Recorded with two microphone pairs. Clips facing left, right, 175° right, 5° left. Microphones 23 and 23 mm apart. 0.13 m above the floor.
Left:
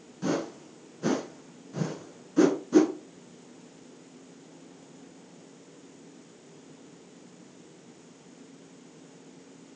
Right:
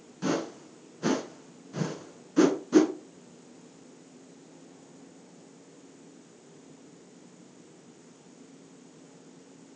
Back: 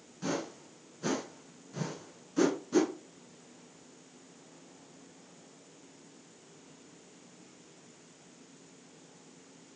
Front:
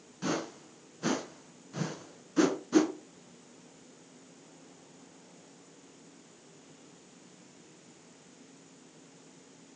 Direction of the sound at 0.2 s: 45° right.